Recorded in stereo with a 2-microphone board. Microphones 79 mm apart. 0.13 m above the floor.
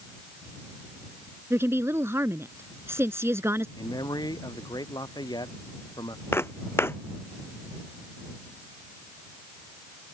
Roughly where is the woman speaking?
Right.